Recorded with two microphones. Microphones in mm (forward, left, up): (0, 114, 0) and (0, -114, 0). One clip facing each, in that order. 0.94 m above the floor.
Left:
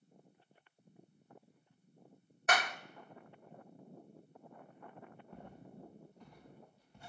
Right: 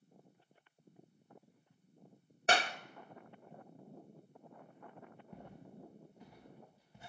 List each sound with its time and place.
2.5 s a clap: 30° right (ahead or behind), 0.5 m
5.3 s footsteps: 10° right (ahead or behind), 7.5 m; by 7.1 s 5° right (ahead or behind), 8.5 m